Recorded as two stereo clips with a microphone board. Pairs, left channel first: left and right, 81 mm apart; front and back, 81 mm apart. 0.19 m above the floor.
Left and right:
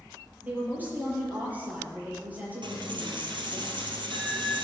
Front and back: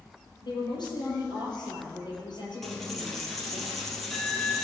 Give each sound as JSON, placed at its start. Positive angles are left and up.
{"t": 0.4, "sound": "a woman speaking", "azimuth_deg": -20, "distance_m": 5.5}
{"t": 2.6, "sound": "a dropped coin", "azimuth_deg": -85, "distance_m": 2.5}